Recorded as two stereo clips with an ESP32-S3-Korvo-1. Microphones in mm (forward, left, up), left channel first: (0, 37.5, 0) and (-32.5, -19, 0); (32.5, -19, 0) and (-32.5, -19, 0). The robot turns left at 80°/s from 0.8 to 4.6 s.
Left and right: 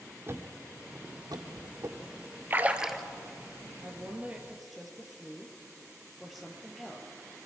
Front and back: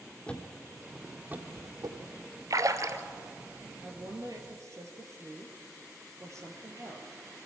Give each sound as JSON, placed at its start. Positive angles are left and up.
{"t": 0.3, "sound": "a thud", "azimuth_deg": -75, "distance_m": 2.0}
{"t": 2.5, "sound": "a splash", "azimuth_deg": -170, "distance_m": 1.0}
{"t": 3.8, "sound": "a woman speaking", "azimuth_deg": -145, "distance_m": 2.5}